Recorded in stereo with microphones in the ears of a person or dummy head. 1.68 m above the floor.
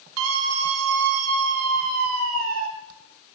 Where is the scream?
80° right, 1.8 m; by 2.7 s 85° right, 3 m.